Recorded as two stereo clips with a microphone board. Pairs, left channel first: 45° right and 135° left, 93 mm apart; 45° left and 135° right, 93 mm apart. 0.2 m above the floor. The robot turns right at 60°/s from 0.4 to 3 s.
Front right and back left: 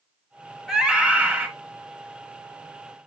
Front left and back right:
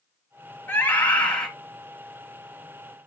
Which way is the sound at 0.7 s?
60° left.